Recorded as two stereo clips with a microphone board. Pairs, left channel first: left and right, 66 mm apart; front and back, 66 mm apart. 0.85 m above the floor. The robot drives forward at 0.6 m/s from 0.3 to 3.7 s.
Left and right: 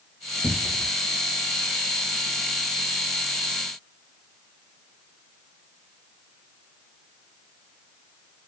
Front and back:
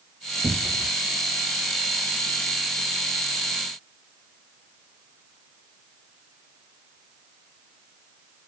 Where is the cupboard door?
130° left, 0.8 m; by 0.9 s 145° left, 1.0 m.